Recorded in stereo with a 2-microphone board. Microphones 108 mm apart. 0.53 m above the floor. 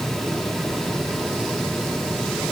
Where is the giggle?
No giggle in this recording.